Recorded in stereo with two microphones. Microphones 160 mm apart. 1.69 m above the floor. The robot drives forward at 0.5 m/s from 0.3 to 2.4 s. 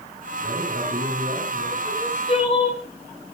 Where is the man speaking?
65° right (ahead or behind), 7.5 m; by 1.8 s 60° right (ahead or behind), 8 m.